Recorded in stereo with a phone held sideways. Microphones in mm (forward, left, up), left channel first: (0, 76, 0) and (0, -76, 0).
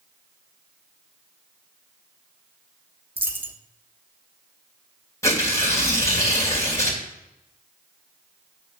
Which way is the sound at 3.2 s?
15° right (ahead or behind).